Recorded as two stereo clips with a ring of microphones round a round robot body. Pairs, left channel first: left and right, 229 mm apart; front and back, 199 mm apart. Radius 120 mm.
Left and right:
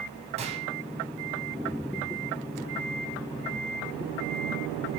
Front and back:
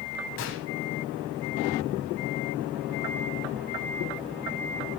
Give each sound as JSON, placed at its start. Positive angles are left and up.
{"t": 0.4, "sound": "a gunshot", "azimuth_deg": -25, "distance_m": 3.5}